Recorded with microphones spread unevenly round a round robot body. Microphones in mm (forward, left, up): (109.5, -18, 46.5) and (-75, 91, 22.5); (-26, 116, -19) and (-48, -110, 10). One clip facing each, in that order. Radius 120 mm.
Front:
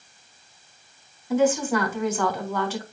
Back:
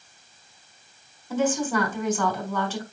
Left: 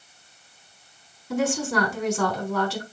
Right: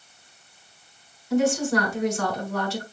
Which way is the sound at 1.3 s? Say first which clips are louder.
Front 3 dB, right 3 dB; 50° left.